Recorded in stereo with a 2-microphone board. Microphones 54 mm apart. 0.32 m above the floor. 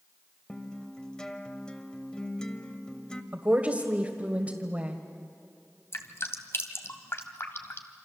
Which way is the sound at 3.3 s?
30° right (ahead or behind).